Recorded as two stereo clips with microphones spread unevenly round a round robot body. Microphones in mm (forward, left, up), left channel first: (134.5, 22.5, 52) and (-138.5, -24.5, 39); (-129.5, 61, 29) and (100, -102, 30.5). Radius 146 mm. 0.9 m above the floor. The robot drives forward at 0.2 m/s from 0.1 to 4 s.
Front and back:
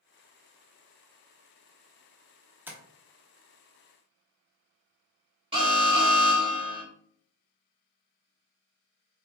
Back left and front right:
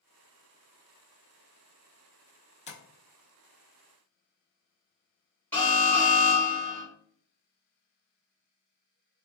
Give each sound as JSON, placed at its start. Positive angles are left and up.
{"t": 2.7, "sound": "tapping", "azimuth_deg": 120, "distance_m": 0.8}
{"t": 5.5, "sound": "an alarm", "azimuth_deg": -135, "distance_m": 1.6}